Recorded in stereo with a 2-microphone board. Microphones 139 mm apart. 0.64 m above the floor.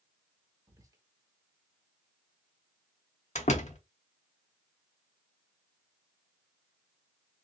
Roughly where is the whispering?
Right.